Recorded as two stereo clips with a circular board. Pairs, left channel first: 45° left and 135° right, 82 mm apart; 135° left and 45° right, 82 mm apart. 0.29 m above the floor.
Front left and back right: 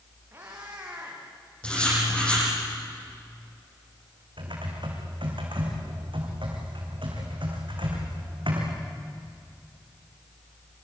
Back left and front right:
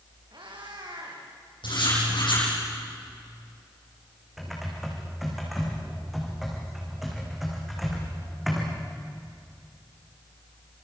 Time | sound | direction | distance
0.3 | a cat meowing | 75° right | 6.5 m
1.6 | writing | 120° left | 10 m
4.4 | typing on a keyboard | 135° right | 5.5 m